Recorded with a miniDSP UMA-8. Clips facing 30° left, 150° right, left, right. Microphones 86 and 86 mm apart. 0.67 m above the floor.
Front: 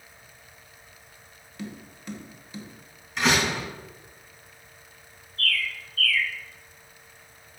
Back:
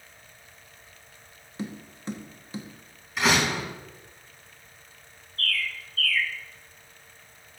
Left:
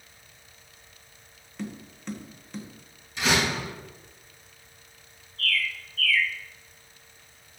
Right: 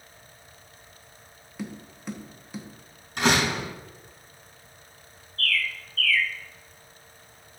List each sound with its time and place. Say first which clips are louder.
1.6 s tapping: back 3 dB, even; 165° right, 1.2 m
3.2 s a door slam: even, right 2 dB; 60° right, 4 m
5.4 s a bird: front 2 dB, right 1 dB; 170° left, 2.0 m